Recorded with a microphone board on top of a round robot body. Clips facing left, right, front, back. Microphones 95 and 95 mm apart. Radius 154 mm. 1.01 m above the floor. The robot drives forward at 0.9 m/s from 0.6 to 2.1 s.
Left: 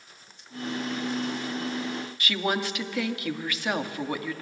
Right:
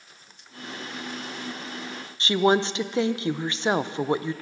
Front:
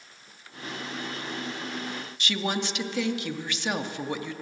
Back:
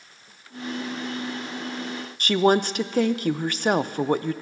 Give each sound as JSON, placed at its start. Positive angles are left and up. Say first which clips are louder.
{"t": 2.2, "sound": "a woman speaking", "louder": "right 8 dB, back 11 dB", "azimuth_deg": -145, "distance_m": 0.5}